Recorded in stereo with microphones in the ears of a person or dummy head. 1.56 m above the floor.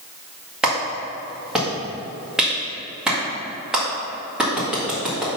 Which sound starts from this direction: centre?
A clap, at 0.6 s.